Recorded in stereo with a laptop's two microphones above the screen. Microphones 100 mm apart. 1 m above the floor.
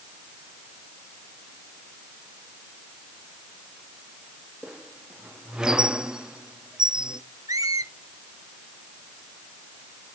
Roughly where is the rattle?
I don't hear a rattle.